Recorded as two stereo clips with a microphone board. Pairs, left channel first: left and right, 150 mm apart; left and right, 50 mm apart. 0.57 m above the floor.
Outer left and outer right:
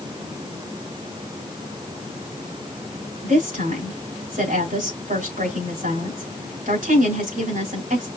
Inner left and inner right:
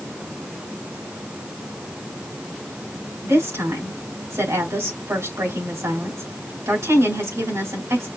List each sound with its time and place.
3.2 s a woman speaking: 75° right (ahead or behind), 4 m